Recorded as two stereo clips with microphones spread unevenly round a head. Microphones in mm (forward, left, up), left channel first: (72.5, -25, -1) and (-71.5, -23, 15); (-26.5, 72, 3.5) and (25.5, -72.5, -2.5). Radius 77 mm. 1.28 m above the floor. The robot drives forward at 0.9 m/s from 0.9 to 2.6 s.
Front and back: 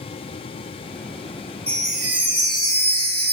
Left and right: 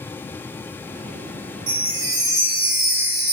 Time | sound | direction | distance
1.7 | a chime | 90° right | 1.1 m